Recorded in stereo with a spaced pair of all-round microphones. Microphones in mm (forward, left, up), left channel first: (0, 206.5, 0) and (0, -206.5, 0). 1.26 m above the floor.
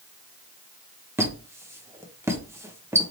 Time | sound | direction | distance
1.2 | a squeak | 5° right (ahead or behind) | 0.6 m